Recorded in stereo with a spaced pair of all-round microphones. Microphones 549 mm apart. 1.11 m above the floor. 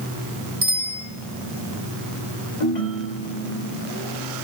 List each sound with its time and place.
0.6 s a bicycle bell: 65° right (ahead or behind), 7 m
2.6 s a ringtone: 80° left, 2.5 m